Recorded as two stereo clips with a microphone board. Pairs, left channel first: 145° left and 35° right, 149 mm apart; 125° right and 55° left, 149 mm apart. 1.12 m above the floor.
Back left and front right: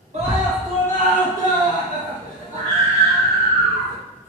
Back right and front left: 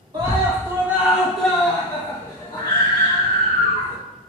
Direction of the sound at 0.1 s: 5° right.